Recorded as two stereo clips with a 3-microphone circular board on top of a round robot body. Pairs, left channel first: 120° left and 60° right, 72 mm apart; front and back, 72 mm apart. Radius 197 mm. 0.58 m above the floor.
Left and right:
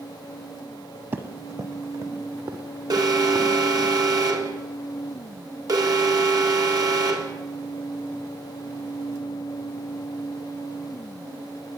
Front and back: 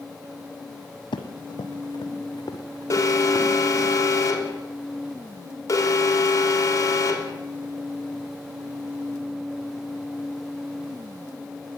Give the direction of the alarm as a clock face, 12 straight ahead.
1 o'clock.